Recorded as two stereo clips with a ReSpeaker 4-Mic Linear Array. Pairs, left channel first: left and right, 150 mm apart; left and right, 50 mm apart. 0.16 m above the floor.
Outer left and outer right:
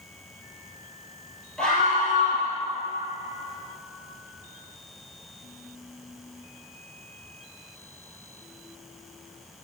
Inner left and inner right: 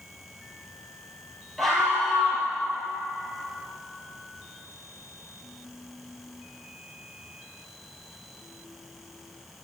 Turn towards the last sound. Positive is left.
turn(degrees=5)  # may be behind; listen again after turning